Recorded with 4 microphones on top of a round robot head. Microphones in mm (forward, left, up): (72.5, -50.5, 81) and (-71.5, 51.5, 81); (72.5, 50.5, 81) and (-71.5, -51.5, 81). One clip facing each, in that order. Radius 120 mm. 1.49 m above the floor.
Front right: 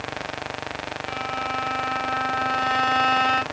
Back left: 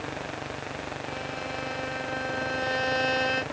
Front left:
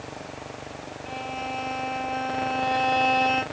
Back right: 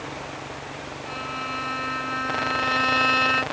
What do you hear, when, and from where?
1.1 s a violin: 90° right, 1.5 m